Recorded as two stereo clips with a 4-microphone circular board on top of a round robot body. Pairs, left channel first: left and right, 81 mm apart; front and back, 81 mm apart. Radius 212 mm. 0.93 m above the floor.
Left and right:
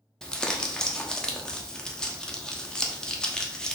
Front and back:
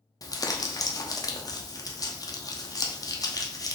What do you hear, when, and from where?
0.2 s crumpling: 10° left, 1.1 m